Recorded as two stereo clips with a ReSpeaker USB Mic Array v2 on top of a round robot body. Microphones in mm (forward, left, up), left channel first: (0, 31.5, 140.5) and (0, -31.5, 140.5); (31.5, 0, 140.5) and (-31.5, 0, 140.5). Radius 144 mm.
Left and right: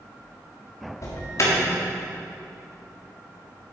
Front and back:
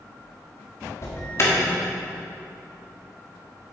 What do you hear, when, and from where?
1.0 s an alarm: 50° left, 1.7 m